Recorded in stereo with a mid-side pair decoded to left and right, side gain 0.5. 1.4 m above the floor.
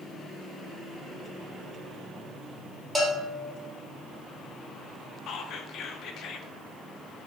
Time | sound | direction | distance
3.0 | a bell | 5° right | 1.4 m
5.3 | whispering | 65° left | 0.6 m